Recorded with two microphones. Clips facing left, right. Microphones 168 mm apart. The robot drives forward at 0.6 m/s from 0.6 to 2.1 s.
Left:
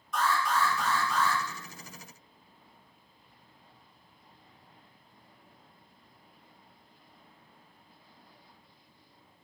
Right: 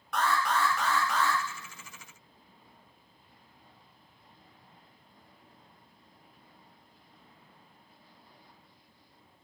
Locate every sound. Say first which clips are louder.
0.1 s an alarm: even; 70° right (ahead or behind), 0.7 m